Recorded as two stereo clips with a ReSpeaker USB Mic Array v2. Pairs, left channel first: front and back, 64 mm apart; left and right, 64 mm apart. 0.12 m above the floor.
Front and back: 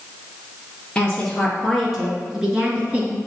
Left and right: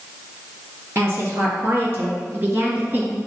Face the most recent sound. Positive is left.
turn(degrees=-135)